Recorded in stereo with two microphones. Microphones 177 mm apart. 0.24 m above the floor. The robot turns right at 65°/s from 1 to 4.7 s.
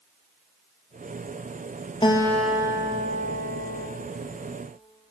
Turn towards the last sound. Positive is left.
turn(degrees=-35)